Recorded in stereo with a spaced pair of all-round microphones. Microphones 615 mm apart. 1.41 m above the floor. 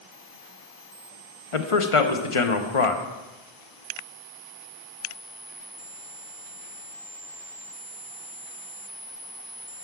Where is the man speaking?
55° left (ahead or behind), 0.9 m.